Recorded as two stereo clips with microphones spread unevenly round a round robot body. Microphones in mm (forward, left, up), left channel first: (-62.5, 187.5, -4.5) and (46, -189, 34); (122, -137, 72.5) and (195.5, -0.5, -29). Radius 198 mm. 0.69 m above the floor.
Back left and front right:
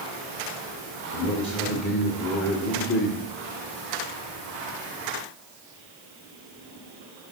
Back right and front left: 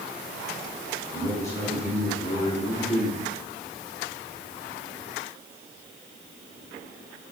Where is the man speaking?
160° left, 1.6 m.